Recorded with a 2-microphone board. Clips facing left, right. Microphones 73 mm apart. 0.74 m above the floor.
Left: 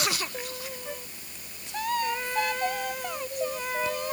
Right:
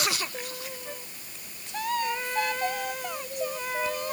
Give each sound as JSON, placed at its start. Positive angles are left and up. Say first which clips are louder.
{"t": 0.8, "sound": "a flute", "louder": "left 2 dB", "side_deg": 10}